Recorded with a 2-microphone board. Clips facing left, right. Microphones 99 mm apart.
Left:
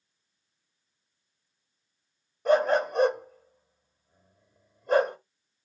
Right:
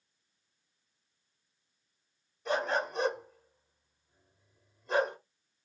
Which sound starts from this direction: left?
A dog barking, at 2.5 s.